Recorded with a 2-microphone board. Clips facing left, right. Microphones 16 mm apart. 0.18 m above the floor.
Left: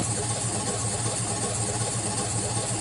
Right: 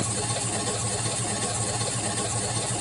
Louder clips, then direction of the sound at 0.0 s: Right 1 dB; 65° right (ahead or behind).